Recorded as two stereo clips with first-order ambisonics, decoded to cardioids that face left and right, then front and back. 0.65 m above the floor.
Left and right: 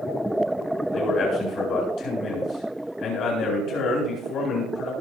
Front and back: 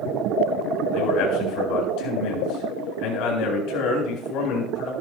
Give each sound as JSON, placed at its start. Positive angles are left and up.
{"t": 0.9, "sound": "a man speaking", "azimuth_deg": 35, "distance_m": 8.0}